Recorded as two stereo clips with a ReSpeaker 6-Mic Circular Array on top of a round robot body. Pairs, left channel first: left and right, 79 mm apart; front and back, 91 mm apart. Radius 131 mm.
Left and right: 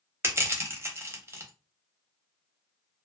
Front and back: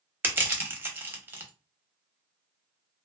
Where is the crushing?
125° right, 1.0 m.